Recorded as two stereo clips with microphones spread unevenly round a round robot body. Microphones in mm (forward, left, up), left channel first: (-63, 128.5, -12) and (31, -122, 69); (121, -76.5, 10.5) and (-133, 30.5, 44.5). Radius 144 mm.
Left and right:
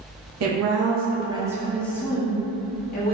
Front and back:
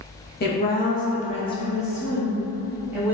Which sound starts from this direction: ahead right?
A woman speaking, at 0.4 s.